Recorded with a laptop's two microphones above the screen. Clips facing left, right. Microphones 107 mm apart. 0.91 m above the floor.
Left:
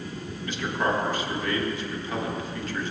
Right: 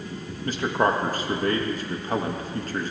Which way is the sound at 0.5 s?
40° right (ahead or behind).